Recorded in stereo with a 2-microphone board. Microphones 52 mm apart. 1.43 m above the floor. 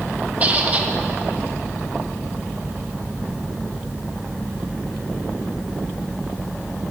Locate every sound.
0.4 s a squeak: 30° right (ahead or behind), 0.7 m